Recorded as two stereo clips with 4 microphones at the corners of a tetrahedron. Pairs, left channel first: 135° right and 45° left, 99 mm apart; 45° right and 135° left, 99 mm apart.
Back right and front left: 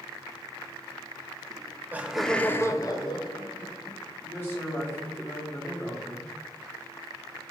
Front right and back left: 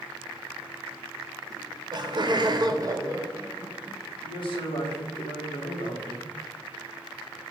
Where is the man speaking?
70° right, 1.2 m.